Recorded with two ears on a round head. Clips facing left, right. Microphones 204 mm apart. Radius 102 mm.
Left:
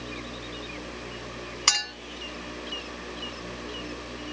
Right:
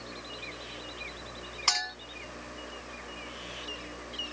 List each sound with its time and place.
1.7 s a clink: 30° left (ahead or behind), 1.6 m